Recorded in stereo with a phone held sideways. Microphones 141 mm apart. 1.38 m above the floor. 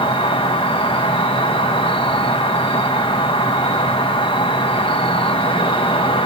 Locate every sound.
0.0 s an insect: 40° left (ahead or behind), 0.7 m